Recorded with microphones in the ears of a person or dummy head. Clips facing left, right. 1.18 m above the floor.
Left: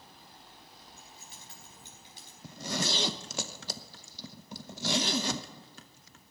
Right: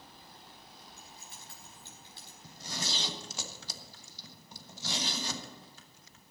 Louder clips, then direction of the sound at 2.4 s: Left 8 dB; 55° left (ahead or behind).